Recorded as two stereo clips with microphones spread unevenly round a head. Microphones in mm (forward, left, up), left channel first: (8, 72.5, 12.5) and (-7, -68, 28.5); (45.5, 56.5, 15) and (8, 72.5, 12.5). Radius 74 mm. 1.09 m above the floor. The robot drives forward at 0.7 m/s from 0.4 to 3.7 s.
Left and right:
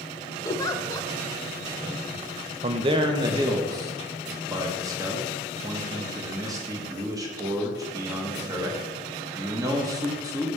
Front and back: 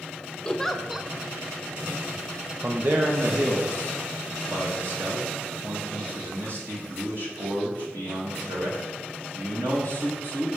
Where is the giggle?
40° left, 0.6 m; by 1.1 s 120° left, 0.6 m.